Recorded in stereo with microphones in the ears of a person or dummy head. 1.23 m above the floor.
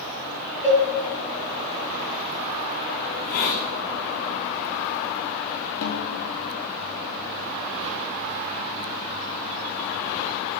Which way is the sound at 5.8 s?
70° left (ahead or behind).